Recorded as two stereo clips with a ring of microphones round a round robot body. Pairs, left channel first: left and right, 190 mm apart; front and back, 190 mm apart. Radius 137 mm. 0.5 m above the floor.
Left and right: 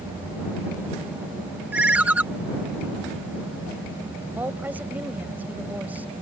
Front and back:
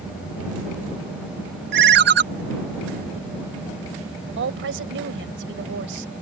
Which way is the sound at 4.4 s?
175° right.